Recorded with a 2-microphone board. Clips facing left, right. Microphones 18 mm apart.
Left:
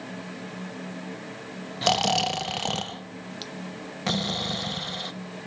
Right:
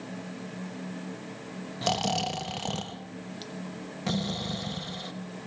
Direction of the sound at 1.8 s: 25° left (ahead or behind).